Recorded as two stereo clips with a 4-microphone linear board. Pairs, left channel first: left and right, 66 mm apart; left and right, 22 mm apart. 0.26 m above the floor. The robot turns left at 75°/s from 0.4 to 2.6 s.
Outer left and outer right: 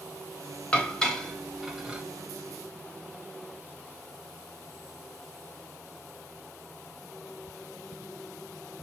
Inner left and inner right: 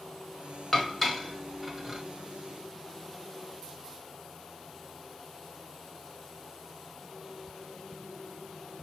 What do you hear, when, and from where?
0.7 s dishes clattering: 20° left (ahead or behind), 0.8 m; by 2.0 s 15° right (ahead or behind), 0.8 m